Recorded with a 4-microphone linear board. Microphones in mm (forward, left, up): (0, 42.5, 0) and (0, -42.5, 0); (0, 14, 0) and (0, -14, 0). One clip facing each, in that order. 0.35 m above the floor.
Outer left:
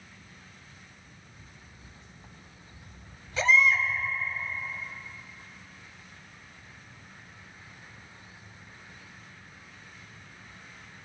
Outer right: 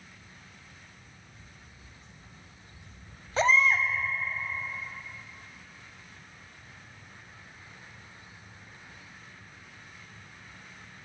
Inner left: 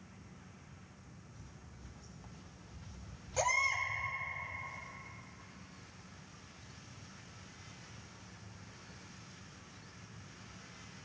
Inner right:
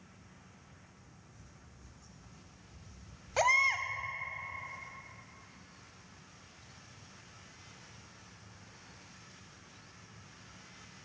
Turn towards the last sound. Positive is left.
turn(degrees=-40)  # may be behind; listen again after turning